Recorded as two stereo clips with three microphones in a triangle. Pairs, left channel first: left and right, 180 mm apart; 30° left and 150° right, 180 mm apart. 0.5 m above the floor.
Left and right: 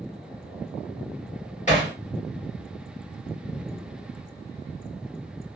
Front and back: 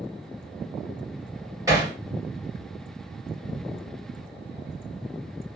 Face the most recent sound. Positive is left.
turn(degrees=135)